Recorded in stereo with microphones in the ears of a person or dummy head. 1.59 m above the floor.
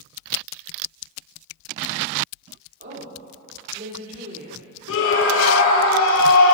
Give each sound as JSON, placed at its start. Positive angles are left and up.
{"t": 2.8, "sound": "a woman speaking", "side_deg": -45, "distance_m": 4.0}
{"t": 4.9, "sound": "a scream", "side_deg": 75, "distance_m": 0.9}